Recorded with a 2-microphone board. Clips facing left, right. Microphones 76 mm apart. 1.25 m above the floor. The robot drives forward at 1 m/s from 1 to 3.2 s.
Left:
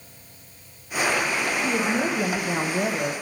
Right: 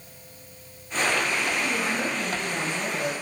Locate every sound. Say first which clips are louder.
1.6 s a woman speaking: left 3 dB; 35° left (ahead or behind), 1.2 m; by 3.1 s 55° left (ahead or behind), 0.9 m